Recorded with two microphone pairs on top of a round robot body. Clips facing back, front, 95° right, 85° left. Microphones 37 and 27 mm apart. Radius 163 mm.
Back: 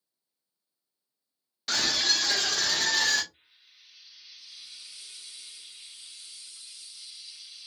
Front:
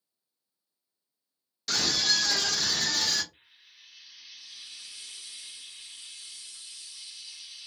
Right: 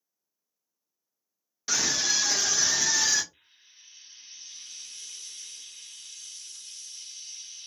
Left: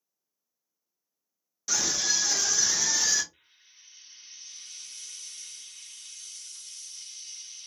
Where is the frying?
20° right, 1.2 m.